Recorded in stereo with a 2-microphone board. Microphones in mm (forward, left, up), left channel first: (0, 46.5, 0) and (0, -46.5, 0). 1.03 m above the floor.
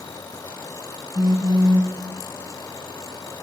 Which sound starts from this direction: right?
A phone buzzing, at 1.1 s.